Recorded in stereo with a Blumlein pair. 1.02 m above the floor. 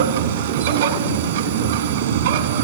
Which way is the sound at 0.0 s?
60° right.